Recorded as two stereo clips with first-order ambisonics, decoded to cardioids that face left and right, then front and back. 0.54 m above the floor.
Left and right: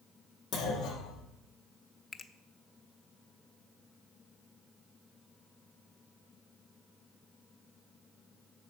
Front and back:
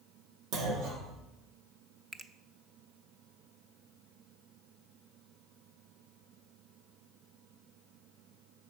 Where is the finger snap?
135° left, 0.5 m.